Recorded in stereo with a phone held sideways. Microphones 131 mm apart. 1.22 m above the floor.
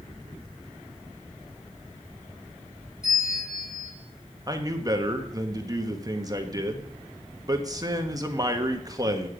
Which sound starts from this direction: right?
A man speaking, at 4.5 s.